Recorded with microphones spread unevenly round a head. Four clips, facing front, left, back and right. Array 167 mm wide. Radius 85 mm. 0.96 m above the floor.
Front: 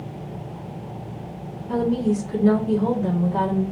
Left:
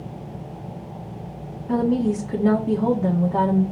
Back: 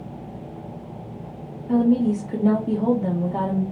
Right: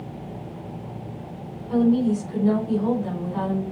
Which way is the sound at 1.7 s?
120° left.